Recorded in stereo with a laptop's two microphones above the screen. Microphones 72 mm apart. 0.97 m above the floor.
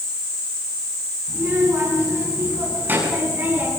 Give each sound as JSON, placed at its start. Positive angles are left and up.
{"t": 1.3, "sound": "a child speaking", "side_deg": -30, "distance_m": 10.0}